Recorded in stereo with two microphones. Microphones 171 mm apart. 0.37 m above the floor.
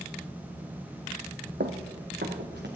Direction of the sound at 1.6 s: 75° right (ahead or behind).